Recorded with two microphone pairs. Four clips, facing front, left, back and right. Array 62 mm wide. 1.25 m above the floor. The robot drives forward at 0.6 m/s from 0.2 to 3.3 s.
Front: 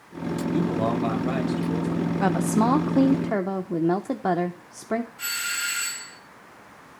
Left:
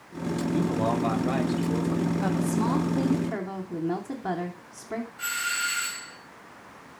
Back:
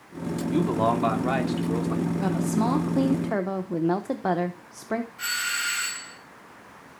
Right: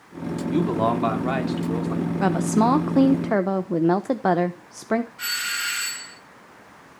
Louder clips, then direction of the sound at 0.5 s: Right 5 dB, back 2 dB; 125° right.